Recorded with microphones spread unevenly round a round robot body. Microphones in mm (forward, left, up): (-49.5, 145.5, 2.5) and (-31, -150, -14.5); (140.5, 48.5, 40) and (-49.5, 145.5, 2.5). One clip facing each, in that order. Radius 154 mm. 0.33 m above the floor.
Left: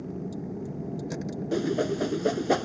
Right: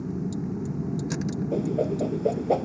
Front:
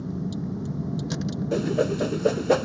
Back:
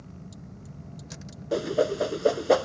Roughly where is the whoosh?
Ahead left.